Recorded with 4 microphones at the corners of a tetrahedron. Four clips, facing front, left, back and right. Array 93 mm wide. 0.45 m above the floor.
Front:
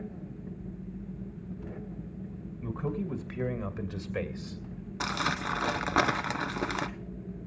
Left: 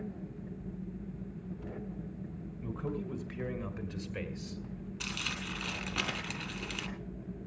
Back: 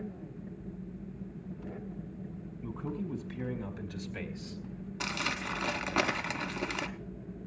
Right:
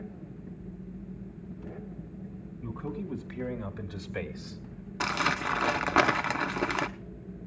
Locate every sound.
2.6 s a man speaking: straight ahead, 3.5 m; by 4.6 s 60° right, 2 m
5.0 s crumpling: 65° right, 0.8 m